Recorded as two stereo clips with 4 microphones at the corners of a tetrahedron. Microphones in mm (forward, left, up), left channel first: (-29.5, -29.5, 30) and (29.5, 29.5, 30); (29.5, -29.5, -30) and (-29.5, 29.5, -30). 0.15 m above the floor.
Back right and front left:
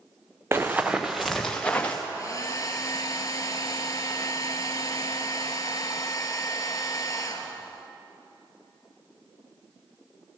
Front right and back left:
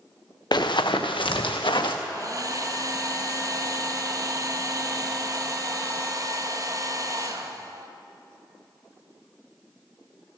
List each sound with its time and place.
0.5 s running footsteps: 15° right, 0.9 m; by 2.0 s 65° right, 1.4 m
2.1 s a hair dryer: straight behind, 0.8 m